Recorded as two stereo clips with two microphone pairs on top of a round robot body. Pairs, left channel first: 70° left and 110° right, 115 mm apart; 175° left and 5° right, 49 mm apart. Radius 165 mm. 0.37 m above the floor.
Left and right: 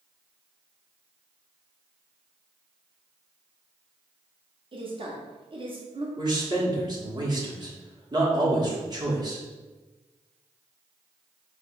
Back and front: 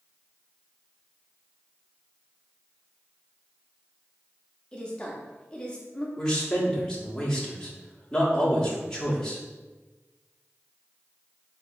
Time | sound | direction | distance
4.7 | a woman speaking | 115° right | 1.0 m
6.2 | a man speaking | 110° right | 1.5 m